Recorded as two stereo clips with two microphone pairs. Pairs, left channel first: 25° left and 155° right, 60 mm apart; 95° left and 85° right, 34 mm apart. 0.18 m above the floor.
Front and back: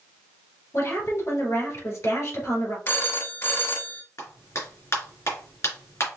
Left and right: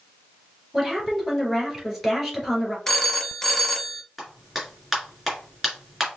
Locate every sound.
0.7 s a woman speaking: straight ahead, 3 m
2.9 s a phone ringing: 15° left, 0.8 m
4.2 s a clap: 5° right, 2.5 m